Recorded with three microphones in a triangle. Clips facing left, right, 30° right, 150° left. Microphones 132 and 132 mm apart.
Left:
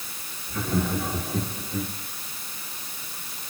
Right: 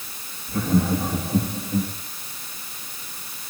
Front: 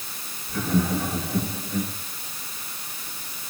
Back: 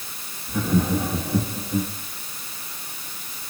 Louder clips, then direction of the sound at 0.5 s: Right 5 dB, back 2 dB; 140° right.